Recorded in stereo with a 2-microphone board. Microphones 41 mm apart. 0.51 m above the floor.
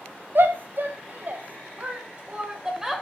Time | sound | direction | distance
0.3 | a shout | 60° right (ahead or behind) | 3 m